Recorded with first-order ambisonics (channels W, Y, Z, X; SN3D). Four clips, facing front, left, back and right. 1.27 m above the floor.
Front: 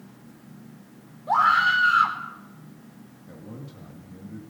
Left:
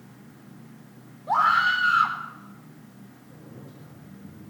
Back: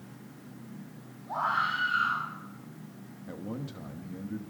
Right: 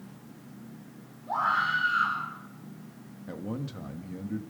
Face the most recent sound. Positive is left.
turn(degrees=-110)